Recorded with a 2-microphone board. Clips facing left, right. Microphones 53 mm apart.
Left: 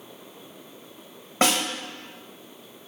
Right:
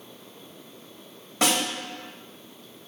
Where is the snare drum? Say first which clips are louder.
Left 2 dB; 35° left (ahead or behind), 1.9 m.